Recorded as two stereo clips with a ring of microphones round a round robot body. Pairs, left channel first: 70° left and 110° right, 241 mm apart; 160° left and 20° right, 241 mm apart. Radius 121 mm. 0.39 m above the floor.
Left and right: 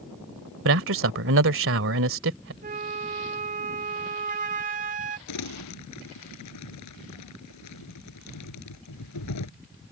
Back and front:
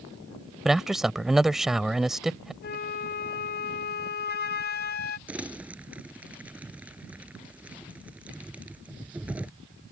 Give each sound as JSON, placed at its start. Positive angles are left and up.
{"t": 0.7, "sound": "a man speaking", "azimuth_deg": -110}
{"t": 2.6, "sound": "a flute", "azimuth_deg": -160}
{"t": 5.3, "sound": "crumpling", "azimuth_deg": 60}